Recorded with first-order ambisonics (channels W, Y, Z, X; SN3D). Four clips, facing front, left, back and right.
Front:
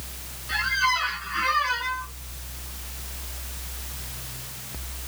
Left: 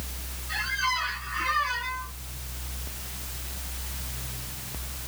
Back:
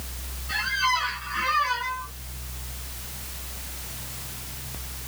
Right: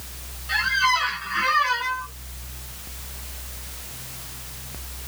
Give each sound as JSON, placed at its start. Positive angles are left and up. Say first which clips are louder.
{"t": 0.5, "sound": "a squeak", "louder": "right 7 dB, front 1 dB", "azimuth_deg": -85, "distance_m": 0.7}